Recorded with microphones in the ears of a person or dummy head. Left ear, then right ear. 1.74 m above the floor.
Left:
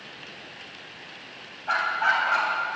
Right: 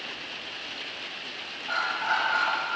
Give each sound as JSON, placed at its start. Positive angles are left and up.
{"t": 1.7, "sound": "a dog barking", "side_deg": 60, "distance_m": 3.5}